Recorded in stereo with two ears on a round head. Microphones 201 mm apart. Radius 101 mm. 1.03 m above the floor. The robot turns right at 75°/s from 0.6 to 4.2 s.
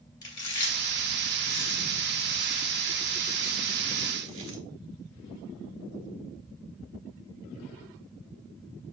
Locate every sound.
0.2 s chewing: 15° left (ahead or behind), 1.7 m; by 4.6 s 60° right (ahead or behind), 1.7 m